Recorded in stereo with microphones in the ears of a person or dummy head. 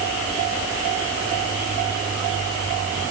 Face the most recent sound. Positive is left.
No sound to turn to.